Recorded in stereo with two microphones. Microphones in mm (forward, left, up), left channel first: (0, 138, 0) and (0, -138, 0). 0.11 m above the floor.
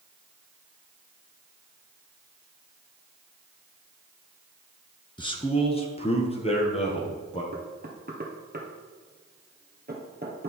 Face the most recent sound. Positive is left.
turn(degrees=-35)  # may be behind; listen again after turning